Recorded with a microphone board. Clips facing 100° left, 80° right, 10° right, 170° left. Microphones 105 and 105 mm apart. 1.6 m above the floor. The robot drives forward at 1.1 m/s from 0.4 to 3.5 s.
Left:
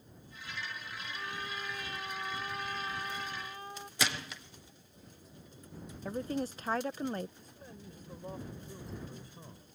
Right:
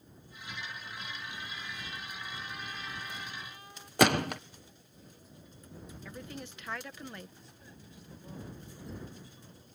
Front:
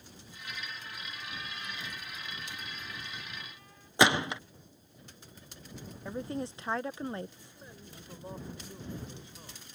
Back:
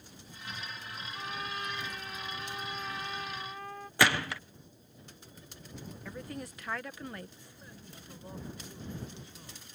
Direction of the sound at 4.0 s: 75° right.